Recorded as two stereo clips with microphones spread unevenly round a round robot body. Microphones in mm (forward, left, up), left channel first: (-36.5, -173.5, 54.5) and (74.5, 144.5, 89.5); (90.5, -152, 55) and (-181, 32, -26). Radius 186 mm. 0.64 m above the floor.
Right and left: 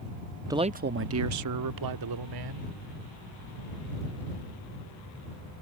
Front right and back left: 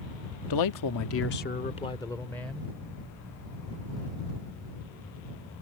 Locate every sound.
0.5 s a man speaking: 10° right; by 2.7 s 60° left